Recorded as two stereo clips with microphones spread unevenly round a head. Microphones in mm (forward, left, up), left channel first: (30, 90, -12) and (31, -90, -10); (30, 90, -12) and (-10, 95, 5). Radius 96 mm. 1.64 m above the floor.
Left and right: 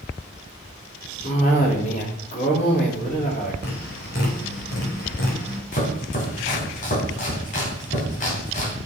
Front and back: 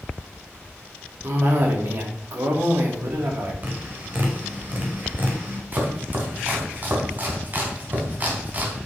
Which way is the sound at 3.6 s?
130° left.